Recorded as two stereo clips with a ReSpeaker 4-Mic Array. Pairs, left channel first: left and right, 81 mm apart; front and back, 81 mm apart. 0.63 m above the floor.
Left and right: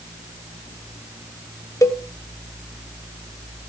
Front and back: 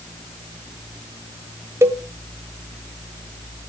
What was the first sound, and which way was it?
A cowbell, 130° left.